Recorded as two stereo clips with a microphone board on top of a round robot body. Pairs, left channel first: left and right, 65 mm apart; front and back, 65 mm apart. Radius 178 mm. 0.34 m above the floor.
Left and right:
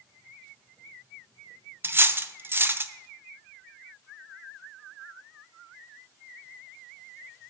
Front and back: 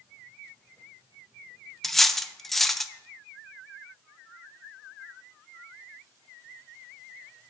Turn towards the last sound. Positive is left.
turn(degrees=-85)